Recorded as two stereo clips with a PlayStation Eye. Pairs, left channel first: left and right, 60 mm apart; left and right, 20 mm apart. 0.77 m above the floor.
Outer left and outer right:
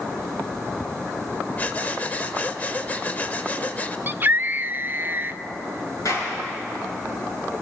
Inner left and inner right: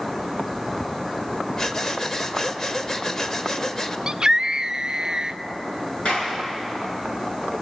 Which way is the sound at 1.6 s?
25° left (ahead or behind).